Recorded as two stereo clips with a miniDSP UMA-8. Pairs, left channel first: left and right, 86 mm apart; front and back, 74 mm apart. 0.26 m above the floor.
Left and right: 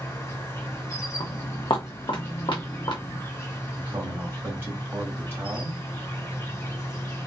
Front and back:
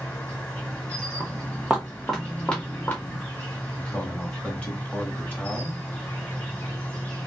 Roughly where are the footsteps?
Behind left.